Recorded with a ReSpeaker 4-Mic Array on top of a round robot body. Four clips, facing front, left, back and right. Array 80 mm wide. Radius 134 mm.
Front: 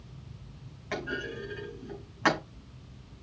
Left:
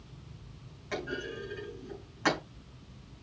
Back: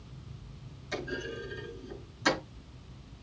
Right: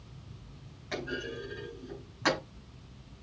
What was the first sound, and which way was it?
A clunk, straight ahead.